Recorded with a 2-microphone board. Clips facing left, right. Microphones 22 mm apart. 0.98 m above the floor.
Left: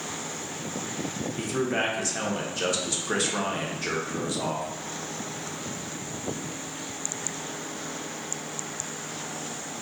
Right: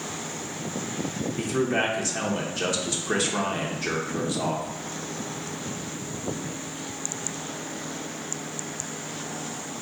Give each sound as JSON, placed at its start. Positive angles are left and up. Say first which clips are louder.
{"t": 1.4, "sound": "a man speaking", "louder": "right 2 dB", "side_deg": -5, "distance_m": 0.6}